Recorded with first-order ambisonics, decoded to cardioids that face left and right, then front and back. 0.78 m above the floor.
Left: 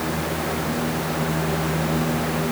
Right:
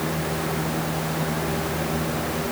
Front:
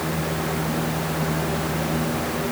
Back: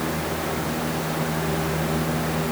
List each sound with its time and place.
Only background noise.